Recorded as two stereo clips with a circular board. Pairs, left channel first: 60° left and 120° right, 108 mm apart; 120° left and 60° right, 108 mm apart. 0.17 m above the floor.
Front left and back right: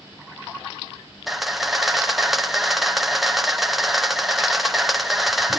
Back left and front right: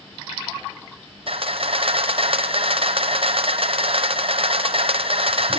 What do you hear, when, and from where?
1.3 s a camera shutter: 30° right, 1.3 m